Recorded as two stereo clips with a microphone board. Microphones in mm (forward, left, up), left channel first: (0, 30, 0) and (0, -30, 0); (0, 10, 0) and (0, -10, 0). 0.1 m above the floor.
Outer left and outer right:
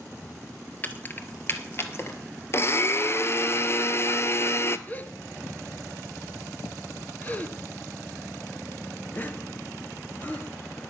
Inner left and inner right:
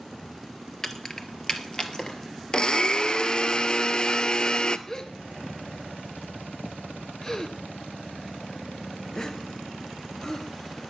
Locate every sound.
0.8 s keys jangling: 30° left (ahead or behind), 1.3 m; by 2.2 s 45° left (ahead or behind), 1.9 m
2.5 s a blender: 45° left (ahead or behind), 0.8 m
4.9 s a gasp: 30° left (ahead or behind), 1.1 m